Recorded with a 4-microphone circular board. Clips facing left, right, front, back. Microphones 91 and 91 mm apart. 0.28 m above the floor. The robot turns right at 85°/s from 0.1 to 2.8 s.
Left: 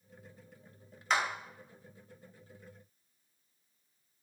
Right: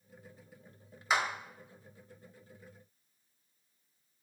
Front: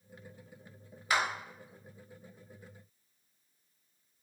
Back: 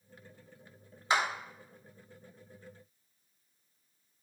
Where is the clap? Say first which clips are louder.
Even, back 1 dB; 165° right, 1.2 m; by 1.2 s 150° right, 1.2 m.